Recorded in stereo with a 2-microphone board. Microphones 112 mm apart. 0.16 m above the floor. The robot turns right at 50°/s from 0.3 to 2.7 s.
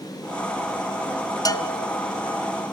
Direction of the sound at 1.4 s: 35° left (ahead or behind).